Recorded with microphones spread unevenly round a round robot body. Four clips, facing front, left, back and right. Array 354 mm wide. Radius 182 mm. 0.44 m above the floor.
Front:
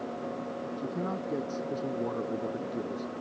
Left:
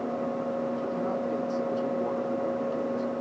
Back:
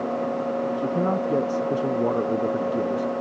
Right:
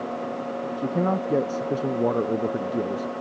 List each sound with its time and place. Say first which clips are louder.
0.8 s a man speaking: right 5 dB, back 8 dB; 120° right